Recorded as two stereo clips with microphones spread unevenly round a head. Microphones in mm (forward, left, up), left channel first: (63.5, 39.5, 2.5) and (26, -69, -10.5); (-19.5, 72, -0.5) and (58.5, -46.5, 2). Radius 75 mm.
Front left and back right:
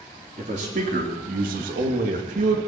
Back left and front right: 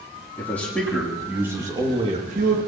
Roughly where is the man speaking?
Behind.